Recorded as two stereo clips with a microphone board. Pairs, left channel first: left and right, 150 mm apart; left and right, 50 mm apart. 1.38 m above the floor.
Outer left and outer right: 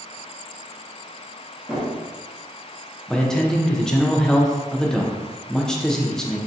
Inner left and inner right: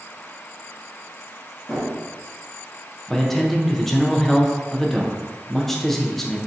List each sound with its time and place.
1.7 s a drawer: 5° right (ahead or behind), 0.9 m
3.1 s a man speaking: 5° left (ahead or behind), 0.5 m